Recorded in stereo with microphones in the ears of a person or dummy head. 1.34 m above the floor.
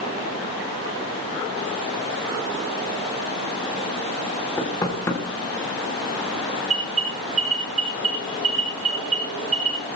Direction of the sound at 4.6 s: 20° left (ahead or behind).